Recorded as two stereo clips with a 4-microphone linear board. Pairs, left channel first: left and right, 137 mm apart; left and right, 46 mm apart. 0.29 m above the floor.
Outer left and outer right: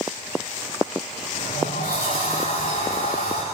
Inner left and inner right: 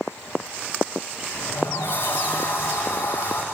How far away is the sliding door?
About 9.5 m.